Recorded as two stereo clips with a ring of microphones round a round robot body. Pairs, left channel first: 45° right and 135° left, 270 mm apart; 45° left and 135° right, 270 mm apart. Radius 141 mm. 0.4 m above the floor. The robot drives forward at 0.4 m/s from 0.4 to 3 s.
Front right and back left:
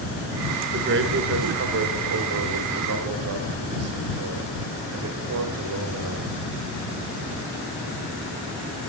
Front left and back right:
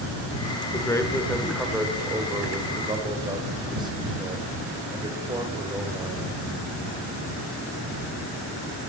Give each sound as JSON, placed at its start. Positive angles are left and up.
{"t": 0.7, "sound": "a man speaking", "azimuth_deg": 115, "distance_m": 1.0}